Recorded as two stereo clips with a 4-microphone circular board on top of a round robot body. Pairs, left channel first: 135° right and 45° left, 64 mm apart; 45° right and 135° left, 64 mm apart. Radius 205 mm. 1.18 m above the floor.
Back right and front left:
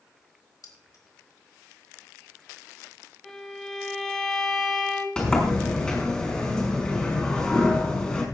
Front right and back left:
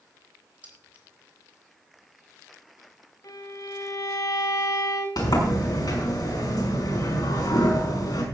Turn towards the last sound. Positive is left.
turn(degrees=-55)